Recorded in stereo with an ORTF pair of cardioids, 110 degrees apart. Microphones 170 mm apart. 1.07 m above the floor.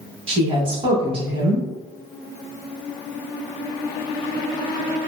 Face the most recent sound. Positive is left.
turn(degrees=-35)